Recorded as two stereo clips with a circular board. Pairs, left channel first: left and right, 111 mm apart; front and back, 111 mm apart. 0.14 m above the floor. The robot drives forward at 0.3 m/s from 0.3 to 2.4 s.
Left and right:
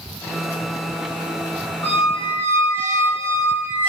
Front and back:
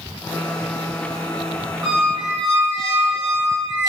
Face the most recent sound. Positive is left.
turn(degrees=155)